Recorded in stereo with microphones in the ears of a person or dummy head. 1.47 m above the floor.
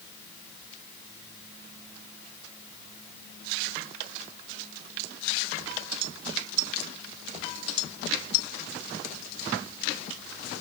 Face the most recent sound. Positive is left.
No sound to turn to.